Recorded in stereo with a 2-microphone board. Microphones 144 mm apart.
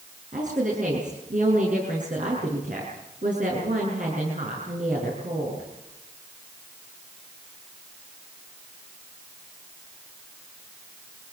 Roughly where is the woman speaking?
Right.